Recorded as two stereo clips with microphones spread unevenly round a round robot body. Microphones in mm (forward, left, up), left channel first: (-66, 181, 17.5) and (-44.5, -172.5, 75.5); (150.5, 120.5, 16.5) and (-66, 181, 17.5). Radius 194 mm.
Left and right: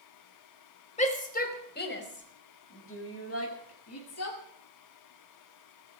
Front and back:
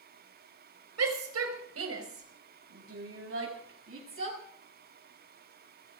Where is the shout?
165° left, 4.5 m; by 4.4 s 140° left, 7 m.